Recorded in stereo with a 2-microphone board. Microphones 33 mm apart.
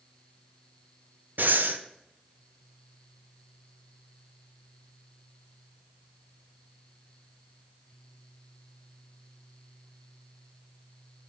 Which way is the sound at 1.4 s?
85° right.